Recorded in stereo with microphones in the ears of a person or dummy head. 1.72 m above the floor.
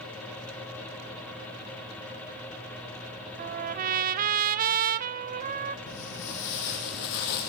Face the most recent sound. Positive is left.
turn(degrees=60)  # may be behind; listen again after turning